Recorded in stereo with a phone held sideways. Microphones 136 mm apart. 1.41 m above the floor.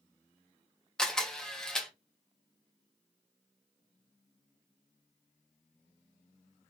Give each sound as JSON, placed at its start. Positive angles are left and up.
{"t": 1.0, "sound": "a camera shutter", "side_deg": 5, "distance_m": 1.4}